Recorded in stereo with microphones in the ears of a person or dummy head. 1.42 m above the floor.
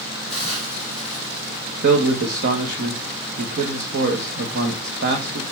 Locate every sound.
0.3 s a hiss: 35° right (ahead or behind), 3.5 m
1.8 s a man speaking: 60° right (ahead or behind), 1.3 m